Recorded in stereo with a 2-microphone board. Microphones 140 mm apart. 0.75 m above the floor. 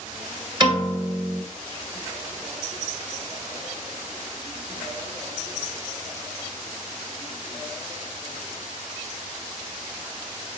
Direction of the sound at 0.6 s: 35° right (ahead or behind).